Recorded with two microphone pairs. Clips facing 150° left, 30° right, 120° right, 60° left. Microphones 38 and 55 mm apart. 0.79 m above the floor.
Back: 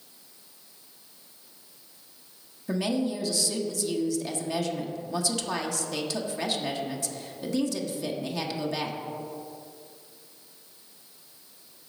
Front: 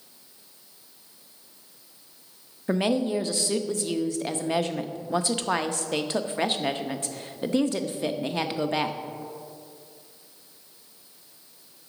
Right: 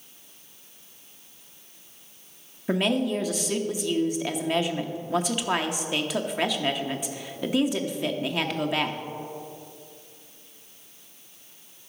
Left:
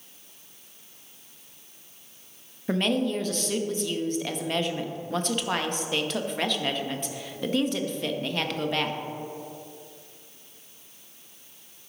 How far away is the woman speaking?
About 0.6 m.